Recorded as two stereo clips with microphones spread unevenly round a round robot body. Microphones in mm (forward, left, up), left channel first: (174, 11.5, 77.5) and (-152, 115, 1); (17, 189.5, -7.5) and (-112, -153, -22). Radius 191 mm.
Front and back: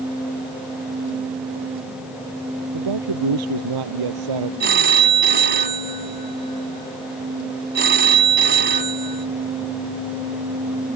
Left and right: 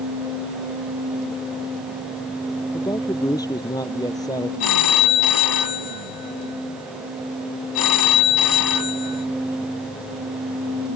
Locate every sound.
2.7 s a man speaking: 150° left
4.6 s a phone ringing: 100° left